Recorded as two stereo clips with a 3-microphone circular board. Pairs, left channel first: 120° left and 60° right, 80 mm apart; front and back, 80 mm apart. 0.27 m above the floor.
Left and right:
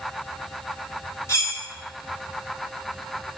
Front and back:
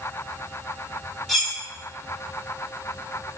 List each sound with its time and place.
1.3 s cutlery clinking: 85° left, 1.0 m